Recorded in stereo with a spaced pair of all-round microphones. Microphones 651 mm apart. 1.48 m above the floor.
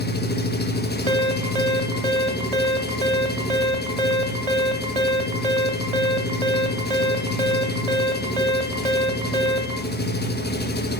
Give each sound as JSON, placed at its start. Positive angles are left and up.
{"t": 0.0, "sound": "an engine running", "side_deg": 15, "distance_m": 1.0}
{"t": 1.1, "sound": "an alarm", "side_deg": -65, "distance_m": 1.3}